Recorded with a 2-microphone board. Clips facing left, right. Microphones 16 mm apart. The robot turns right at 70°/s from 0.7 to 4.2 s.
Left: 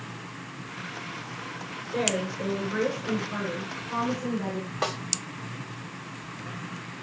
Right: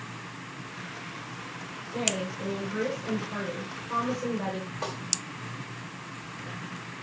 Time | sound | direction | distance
1.9 | a woman speaking | 75° left | 4 m
4.8 | a snare drum | 30° left (ahead or behind) | 1.2 m